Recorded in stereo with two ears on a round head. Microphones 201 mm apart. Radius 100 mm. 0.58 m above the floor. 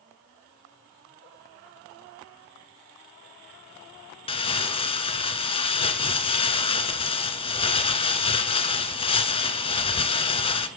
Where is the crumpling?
25° left (ahead or behind), 1.4 m.